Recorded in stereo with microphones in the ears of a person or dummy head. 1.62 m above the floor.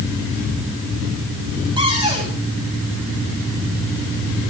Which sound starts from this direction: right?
A cupboard door, at 1.8 s.